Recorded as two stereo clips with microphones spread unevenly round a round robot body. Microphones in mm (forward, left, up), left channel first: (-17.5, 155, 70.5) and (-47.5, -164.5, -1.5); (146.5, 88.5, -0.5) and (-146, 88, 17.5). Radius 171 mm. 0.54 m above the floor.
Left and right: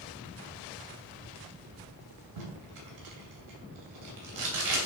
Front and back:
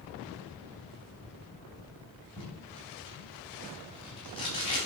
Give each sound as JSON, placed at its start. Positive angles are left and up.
{"t": 2.4, "sound": "tape being pulled", "azimuth_deg": -75, "distance_m": 2.5}